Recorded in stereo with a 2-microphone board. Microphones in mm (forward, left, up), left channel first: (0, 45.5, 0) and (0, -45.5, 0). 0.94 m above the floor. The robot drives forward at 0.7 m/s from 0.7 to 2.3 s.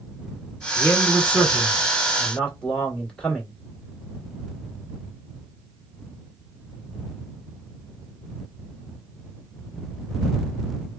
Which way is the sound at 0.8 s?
20° left (ahead or behind).